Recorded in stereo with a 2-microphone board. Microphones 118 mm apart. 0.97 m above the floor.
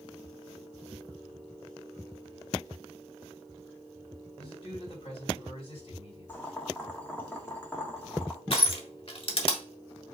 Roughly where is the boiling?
Centre.